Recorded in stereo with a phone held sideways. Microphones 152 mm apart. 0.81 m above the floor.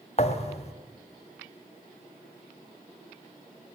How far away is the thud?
About 1.9 m.